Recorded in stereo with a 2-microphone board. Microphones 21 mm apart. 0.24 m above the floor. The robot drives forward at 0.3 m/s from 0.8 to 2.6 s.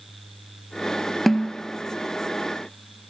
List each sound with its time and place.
1.3 s a snare drum: 10° left (ahead or behind), 0.7 m